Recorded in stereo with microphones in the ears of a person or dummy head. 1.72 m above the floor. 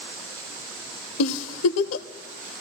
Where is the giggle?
80° left, 0.5 m.